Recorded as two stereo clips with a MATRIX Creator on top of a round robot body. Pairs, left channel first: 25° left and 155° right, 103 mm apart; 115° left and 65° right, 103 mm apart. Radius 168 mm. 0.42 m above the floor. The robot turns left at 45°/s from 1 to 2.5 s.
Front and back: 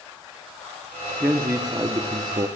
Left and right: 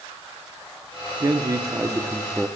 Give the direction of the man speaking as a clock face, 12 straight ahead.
3 o'clock.